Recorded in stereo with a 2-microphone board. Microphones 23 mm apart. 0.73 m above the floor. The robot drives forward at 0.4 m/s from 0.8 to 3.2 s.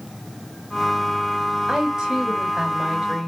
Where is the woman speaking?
30° right (ahead or behind), 4.5 m.